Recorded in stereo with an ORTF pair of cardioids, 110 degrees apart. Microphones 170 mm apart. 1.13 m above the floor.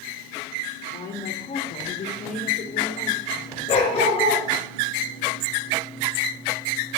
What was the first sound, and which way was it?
A woman speaking, 65° left.